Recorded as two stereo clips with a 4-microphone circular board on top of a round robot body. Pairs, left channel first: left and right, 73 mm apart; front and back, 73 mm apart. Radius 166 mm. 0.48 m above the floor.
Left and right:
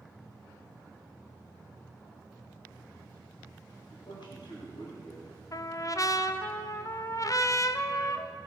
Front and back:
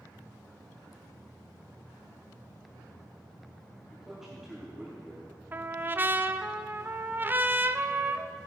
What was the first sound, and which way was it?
A man speaking, 95° left.